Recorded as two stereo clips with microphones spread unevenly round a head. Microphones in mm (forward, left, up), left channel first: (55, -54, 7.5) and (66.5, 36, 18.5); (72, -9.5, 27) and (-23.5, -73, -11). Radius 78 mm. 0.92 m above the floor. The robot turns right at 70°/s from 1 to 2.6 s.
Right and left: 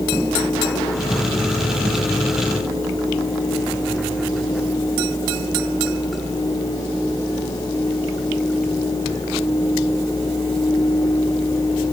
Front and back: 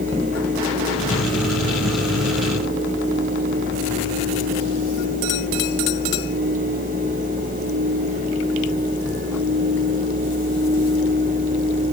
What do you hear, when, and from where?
Only background noise.